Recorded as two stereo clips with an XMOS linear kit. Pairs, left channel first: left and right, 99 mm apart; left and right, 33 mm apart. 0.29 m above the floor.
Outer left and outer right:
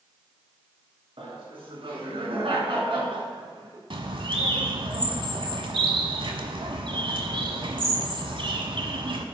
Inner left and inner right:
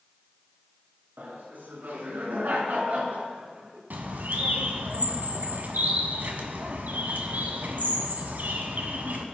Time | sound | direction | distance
1.2 | laughter | 75° right (ahead or behind) | 3.5 m
3.9 | a bird | 65° right (ahead or behind) | 1.4 m